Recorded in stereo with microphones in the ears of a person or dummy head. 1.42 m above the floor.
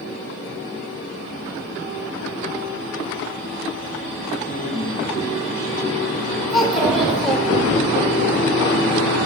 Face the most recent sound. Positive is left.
turn(degrees=0)  # may be behind; listen again after turning